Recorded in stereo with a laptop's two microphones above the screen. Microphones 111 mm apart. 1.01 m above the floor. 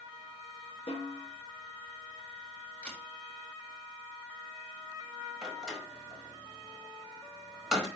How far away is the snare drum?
About 3 m.